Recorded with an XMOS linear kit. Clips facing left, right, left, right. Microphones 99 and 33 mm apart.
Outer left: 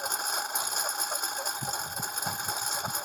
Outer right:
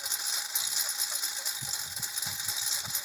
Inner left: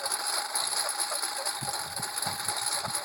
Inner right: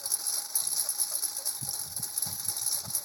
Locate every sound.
0.0 s a lawn mower: 50° left (ahead or behind)